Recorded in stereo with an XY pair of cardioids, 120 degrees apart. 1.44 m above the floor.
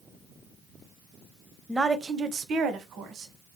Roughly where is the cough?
I don't hear a cough.